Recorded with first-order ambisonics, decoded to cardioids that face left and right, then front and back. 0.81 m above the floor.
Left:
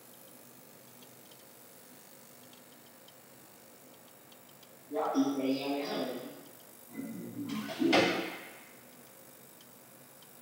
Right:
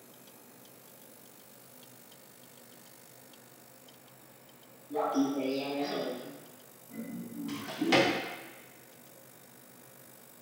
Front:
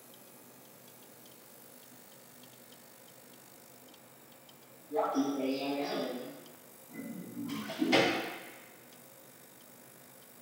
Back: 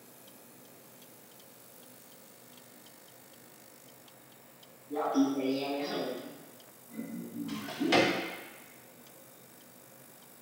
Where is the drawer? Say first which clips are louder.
Even, back 1 dB; 115° right, 1.2 m.